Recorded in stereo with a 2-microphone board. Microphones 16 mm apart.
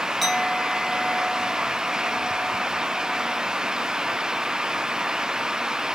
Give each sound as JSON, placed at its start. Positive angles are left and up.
{"t": 0.2, "sound": "a clink", "side_deg": -5, "distance_m": 3.0}